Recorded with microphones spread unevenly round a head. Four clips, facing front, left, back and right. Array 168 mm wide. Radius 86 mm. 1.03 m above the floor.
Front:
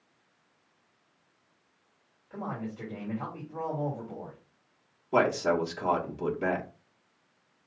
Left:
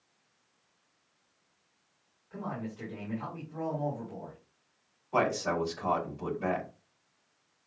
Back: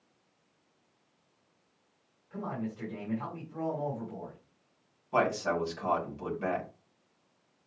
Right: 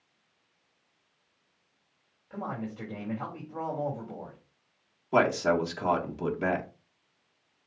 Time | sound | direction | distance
2.3 | a man speaking | 90° right | 3 m
5.1 | a man speaking | 75° right | 2 m